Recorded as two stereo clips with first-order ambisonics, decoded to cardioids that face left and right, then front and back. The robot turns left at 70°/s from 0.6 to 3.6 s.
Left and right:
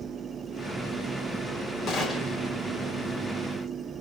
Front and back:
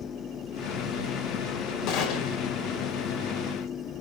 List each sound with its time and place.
1.9 s a gunshot: 30° left, 2.5 m; by 2.4 s 10° right, 2.5 m